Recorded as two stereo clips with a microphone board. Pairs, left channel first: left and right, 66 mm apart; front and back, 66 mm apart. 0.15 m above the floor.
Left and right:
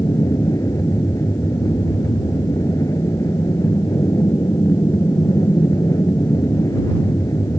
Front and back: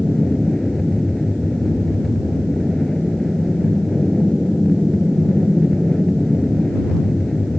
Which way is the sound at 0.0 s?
85° left.